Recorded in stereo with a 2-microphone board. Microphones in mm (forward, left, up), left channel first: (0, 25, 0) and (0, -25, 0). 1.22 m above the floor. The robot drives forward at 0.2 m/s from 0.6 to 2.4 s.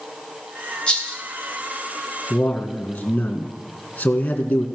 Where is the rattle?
20° left (ahead or behind), 3 m.